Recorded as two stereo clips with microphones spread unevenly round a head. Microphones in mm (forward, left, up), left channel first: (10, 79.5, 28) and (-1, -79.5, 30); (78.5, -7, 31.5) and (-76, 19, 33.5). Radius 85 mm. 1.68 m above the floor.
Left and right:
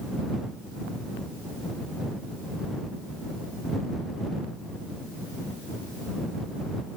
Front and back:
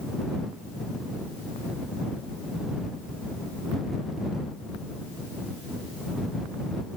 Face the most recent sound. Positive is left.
No sound to turn to.